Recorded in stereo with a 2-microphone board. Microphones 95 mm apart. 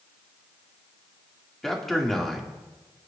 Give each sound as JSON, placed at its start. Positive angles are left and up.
{"t": 1.6, "sound": "a man speaking", "side_deg": 5, "distance_m": 2.0}